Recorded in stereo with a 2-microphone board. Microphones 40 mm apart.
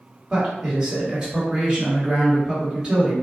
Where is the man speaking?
20° right (ahead or behind), 1.4 m.